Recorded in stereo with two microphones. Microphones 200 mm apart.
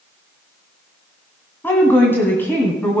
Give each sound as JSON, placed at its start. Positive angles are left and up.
{"t": 1.6, "sound": "a woman speaking", "side_deg": 10, "distance_m": 1.8}